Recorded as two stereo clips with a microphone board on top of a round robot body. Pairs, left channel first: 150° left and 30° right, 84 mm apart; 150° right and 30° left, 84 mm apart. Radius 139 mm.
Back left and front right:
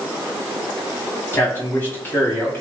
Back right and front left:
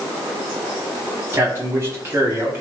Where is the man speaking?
90° left, 5 m.